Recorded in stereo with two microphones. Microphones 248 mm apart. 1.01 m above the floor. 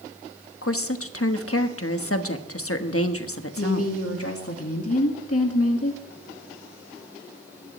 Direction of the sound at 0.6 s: 65° left (ahead or behind).